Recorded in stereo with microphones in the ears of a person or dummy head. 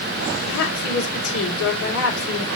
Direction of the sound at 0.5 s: 75° left (ahead or behind).